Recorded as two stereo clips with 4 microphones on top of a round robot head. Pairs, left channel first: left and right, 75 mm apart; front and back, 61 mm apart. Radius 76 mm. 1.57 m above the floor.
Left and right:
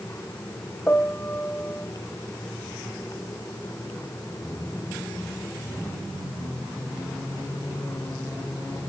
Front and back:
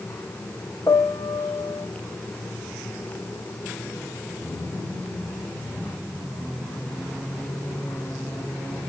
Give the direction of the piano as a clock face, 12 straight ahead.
11 o'clock.